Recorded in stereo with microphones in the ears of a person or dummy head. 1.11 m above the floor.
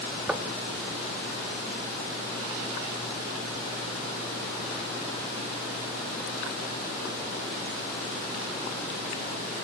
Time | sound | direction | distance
0.3 | knocking | 5° right (ahead or behind) | 1.4 m